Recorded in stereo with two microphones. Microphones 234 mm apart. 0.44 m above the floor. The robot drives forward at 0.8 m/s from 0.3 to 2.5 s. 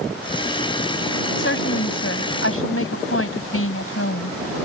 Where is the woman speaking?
60° left (ahead or behind); by 4.4 s 70° left (ahead or behind).